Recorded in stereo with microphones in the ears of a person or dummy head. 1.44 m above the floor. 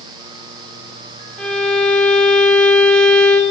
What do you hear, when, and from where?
1.4 s a violin: centre (ahead or behind), 4.5 m